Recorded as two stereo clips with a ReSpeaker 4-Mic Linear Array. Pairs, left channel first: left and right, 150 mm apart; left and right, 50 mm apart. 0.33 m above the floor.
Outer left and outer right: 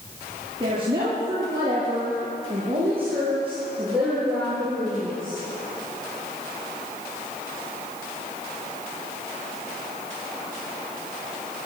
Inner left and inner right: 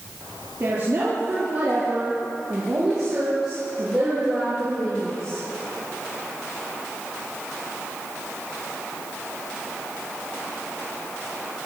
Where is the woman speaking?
30° right (ahead or behind), 8 m; by 5.4 s 5° left (ahead or behind), 7.5 m.